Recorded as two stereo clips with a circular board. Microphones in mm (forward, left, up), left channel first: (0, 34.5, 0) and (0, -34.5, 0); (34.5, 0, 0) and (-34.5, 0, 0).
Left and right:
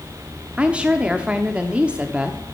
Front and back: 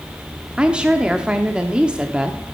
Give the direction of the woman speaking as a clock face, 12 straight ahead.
5 o'clock.